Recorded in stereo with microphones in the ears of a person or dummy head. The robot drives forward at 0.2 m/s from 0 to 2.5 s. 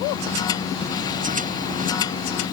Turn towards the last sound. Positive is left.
No sound to turn to.